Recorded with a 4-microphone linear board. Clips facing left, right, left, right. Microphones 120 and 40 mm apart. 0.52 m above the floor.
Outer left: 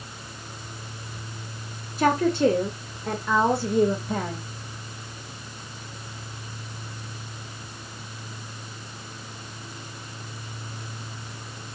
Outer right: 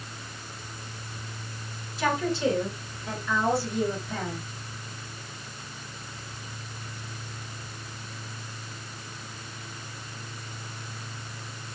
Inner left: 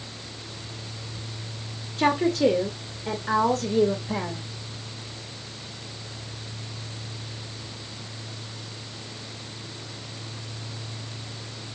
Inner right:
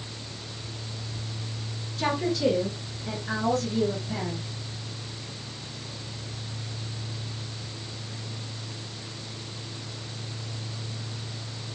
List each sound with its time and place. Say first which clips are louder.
2.0 s a woman speaking: outer left 6 dB, inner left 5 dB; 50° left (ahead or behind), 1.6 m; by 4.4 s 55° left (ahead or behind), 2 m